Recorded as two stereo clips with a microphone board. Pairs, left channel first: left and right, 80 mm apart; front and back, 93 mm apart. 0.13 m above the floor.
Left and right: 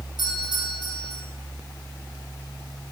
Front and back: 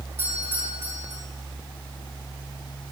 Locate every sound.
0.2 s a doorbell: 115° left, 7.5 m